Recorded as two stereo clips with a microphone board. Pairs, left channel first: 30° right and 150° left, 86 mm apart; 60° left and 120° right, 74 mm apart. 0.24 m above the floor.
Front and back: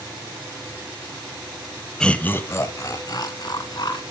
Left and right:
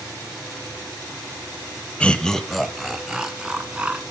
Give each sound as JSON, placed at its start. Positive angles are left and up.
{"t": 2.0, "sound": "laughter", "azimuth_deg": 25, "distance_m": 1.0}